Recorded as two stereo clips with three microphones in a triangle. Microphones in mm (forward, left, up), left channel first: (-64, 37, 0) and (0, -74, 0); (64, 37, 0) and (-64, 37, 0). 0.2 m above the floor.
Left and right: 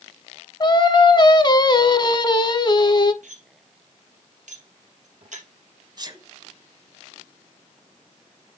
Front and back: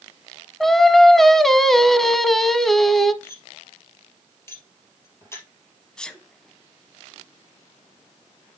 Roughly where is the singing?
Left.